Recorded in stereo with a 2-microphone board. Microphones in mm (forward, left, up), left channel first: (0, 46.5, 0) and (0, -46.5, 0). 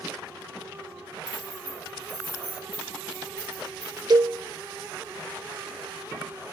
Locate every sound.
1.3 s keys jangling: 35° left (ahead or behind), 9 m; by 4.0 s 40° left (ahead or behind), 10.5 m
4.1 s a cowbell: 50° right (ahead or behind), 0.6 m